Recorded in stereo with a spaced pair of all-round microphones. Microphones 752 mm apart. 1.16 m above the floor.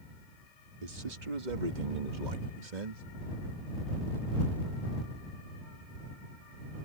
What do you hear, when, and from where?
0.8 s a man speaking: 55° right (ahead or behind); by 3.0 s 50° right (ahead or behind)